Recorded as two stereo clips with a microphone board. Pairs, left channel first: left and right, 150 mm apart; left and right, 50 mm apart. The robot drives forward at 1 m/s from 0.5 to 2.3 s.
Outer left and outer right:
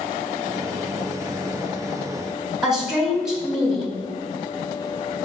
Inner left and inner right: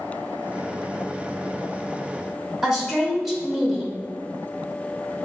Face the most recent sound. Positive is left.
turn(degrees=-5)  # may be behind; listen again after turning